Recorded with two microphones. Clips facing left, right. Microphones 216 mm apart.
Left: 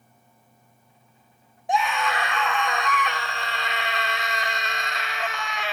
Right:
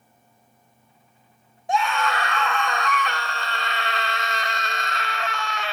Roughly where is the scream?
Centre.